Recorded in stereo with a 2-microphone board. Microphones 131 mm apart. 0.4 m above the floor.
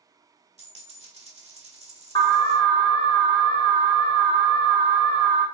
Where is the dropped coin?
60° right (ahead or behind), 1.0 m.